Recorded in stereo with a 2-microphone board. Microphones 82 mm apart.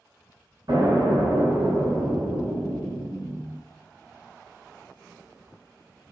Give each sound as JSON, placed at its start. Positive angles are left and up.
{"t": 0.7, "sound": "an explosion", "side_deg": -70, "distance_m": 1.3}